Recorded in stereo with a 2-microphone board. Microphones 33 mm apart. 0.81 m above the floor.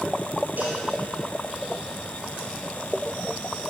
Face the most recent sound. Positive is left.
turn(degrees=-65)  # may be behind; listen again after turning